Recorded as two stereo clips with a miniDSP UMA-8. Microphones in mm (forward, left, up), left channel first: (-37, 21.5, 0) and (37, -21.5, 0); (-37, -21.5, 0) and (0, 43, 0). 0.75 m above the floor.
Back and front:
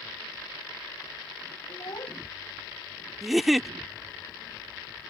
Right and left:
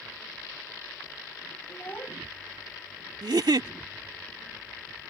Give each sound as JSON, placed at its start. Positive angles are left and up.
{"t": 1.7, "sound": "a child speaking", "azimuth_deg": 180}
{"t": 3.2, "sound": "a giggle", "azimuth_deg": 60}